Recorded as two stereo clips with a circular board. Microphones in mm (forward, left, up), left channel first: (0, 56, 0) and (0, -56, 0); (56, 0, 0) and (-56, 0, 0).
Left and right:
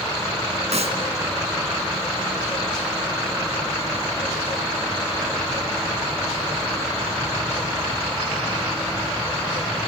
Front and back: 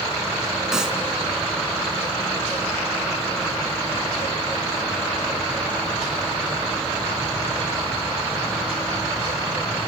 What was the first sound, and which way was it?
A clap, 95° right.